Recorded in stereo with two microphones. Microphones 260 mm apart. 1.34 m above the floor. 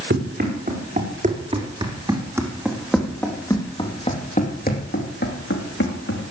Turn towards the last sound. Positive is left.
turn(degrees=55)  # may be behind; listen again after turning